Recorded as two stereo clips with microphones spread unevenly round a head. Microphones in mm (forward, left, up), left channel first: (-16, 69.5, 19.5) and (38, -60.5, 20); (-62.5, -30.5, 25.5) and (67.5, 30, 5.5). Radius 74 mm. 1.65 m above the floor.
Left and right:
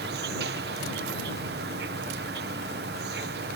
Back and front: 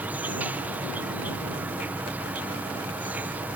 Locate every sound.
0.0 s an insect: 60° right